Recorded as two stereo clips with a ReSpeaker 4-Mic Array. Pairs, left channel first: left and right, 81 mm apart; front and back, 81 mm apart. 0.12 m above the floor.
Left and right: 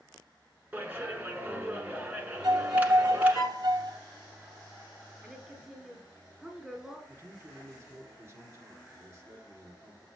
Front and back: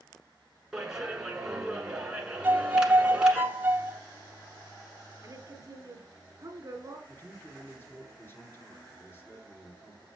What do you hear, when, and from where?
0.7 s a clap: 110° right, 1.2 m
2.4 s a violin: 115° right, 0.6 m
5.2 s a woman speaking: 170° right, 1.4 m
7.1 s a man speaking: 50° right, 1.8 m